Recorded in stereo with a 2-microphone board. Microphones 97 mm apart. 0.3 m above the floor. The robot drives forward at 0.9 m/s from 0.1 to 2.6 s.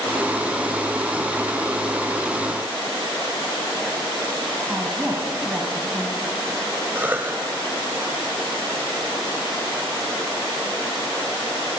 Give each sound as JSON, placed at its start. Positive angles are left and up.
{"t": 4.7, "sound": "a woman speaking", "side_deg": -10, "distance_m": 2.5}
{"t": 7.0, "sound": "a cough", "side_deg": -20, "distance_m": 1.0}